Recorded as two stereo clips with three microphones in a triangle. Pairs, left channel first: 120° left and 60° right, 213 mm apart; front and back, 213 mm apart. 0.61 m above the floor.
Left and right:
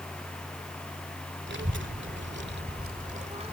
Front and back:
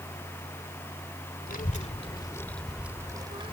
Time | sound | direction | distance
1.5 | a child speaking | 40° right | ?